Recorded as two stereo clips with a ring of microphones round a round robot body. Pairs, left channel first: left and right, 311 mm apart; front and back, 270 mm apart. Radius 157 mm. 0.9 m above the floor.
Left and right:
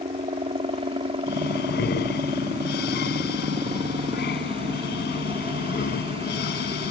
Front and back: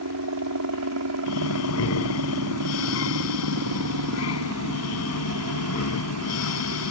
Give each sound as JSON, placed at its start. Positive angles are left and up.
{"t": 0.0, "sound": "a helicopter", "azimuth_deg": -160}
{"t": 1.3, "sound": "breathing", "azimuth_deg": 30}